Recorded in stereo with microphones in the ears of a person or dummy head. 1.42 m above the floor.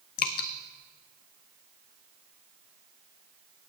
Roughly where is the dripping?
Left.